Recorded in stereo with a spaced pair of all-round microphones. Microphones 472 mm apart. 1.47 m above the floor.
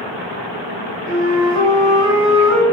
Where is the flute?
55° right (ahead or behind), 4 m.